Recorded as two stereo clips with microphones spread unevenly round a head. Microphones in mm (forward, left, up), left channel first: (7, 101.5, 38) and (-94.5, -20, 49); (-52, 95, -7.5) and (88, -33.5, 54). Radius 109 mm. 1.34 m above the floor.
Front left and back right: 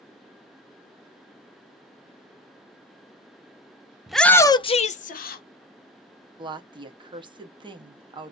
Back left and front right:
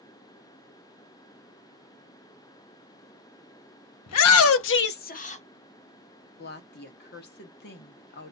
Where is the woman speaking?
170° left, 1.1 m.